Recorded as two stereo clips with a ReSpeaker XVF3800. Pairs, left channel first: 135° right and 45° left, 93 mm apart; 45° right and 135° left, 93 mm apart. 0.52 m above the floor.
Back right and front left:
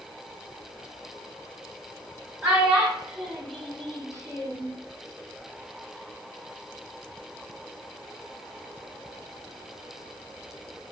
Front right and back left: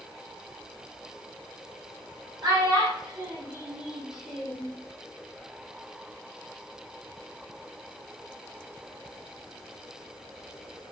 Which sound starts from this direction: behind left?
A child speaking, at 2.4 s.